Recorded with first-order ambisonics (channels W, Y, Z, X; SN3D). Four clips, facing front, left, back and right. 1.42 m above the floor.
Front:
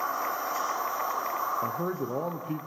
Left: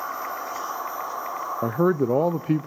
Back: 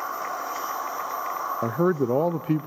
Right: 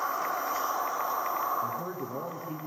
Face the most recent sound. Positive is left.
turn(degrees=125)